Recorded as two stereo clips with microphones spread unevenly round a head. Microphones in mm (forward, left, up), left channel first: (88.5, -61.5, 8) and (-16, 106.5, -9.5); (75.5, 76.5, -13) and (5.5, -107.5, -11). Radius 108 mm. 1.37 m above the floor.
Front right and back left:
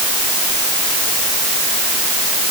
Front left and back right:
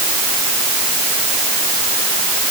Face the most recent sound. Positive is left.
No sound to turn to.